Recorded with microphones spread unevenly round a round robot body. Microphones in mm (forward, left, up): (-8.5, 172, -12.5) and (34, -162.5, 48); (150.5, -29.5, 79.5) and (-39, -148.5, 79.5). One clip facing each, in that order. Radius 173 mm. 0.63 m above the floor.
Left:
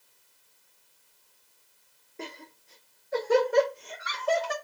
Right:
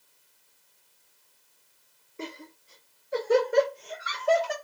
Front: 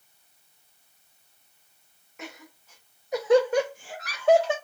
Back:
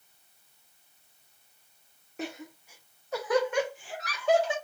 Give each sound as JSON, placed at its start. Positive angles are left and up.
{"t": 2.2, "sound": "laughter", "azimuth_deg": -175, "distance_m": 0.7}